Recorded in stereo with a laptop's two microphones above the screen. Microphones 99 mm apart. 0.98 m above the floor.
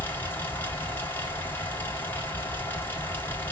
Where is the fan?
20° left (ahead or behind), 1.3 m.